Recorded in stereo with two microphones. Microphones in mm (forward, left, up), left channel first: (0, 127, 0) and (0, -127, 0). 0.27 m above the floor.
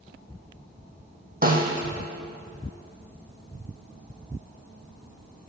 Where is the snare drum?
35° right (ahead or behind), 1.7 m.